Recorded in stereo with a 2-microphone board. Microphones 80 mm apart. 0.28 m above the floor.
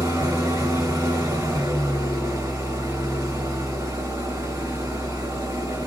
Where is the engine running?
40° right (ahead or behind), 1.9 m.